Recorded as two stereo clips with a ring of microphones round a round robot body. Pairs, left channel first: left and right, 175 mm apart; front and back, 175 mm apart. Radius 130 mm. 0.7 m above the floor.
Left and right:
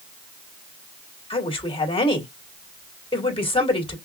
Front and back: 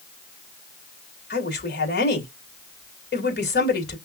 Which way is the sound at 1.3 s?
30° left.